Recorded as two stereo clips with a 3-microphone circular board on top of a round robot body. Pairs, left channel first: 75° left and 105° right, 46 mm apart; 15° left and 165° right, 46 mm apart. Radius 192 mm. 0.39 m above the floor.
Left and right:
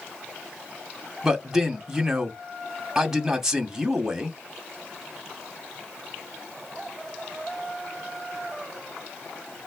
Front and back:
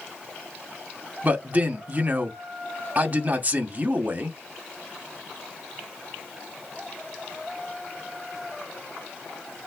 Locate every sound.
1.2 s a man speaking: 175° right, 1.2 m